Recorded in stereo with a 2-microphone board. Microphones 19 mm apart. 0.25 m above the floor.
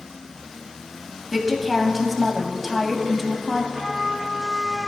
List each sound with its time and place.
1.3 s a woman speaking: centre (ahead or behind), 1.6 m
3.7 s a trumpet: 50° right (ahead or behind), 3.5 m